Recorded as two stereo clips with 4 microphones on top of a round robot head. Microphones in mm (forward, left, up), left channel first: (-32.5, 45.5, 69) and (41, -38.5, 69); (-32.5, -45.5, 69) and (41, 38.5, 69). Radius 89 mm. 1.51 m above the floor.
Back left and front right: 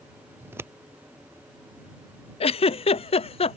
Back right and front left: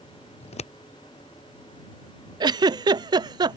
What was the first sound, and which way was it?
Scissors, 115° right.